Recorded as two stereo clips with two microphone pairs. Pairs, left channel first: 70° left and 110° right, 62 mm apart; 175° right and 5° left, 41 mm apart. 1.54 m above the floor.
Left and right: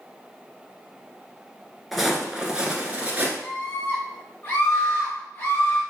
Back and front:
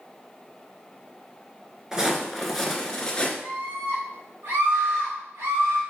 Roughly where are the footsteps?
Ahead.